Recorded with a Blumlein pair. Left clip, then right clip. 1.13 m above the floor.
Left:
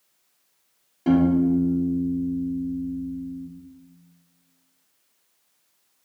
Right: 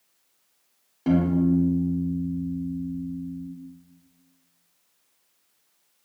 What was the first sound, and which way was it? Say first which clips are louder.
A piano: left 3 dB; 5° right.